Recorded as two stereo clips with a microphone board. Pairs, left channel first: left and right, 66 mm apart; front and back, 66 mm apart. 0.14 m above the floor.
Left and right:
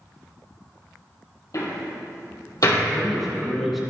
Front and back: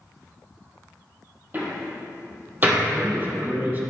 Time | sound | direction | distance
1.5 | a door slam | 120° left | 3 m
2.9 | a man speaking | 175° right | 1.9 m